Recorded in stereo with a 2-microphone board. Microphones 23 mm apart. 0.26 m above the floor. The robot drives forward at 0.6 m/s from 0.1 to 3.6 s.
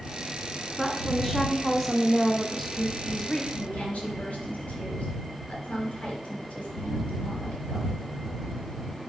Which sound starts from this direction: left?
A woman speaking, at 3.5 s.